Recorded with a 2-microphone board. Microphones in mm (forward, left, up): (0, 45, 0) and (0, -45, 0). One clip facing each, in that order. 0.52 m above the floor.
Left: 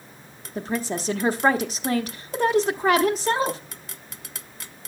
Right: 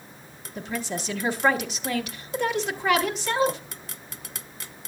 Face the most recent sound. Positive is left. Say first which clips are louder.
# left 4 dB
turn(degrees=40)  # may be behind; listen again after turning